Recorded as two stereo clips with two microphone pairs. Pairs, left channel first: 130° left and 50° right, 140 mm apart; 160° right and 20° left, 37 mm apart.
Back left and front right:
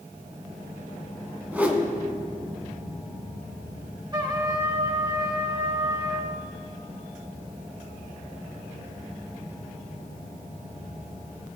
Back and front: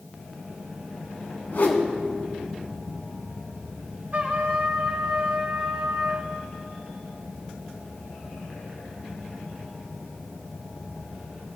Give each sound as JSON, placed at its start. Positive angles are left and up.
{"t": 1.5, "sound": "a whoosh", "azimuth_deg": -130, "distance_m": 1.3}
{"t": 4.1, "sound": "a trumpet", "azimuth_deg": 0, "distance_m": 1.2}